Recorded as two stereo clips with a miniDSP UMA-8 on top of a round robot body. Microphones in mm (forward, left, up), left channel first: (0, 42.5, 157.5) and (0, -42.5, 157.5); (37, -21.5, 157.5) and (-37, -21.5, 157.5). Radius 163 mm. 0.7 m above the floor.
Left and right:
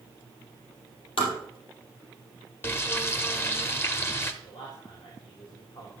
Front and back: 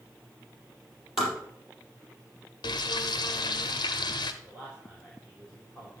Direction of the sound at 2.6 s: 25° left.